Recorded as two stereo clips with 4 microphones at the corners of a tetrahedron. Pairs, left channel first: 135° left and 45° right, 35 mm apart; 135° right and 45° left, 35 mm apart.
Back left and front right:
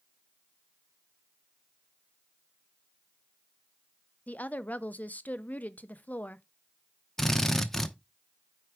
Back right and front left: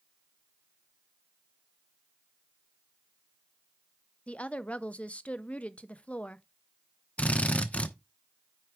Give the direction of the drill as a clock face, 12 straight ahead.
5 o'clock.